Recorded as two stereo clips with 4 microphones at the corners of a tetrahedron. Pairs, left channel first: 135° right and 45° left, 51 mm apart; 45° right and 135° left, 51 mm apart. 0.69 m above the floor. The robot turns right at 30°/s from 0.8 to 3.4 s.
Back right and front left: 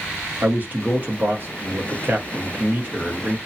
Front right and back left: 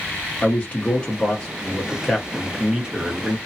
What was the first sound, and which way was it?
A man speaking, 10° left.